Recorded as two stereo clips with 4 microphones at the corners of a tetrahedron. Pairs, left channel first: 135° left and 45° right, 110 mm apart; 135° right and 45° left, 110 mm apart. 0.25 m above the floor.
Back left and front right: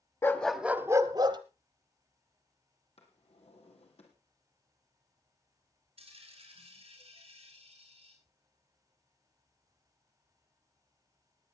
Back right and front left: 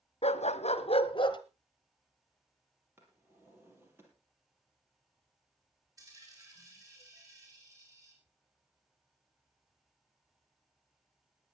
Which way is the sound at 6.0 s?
15° right.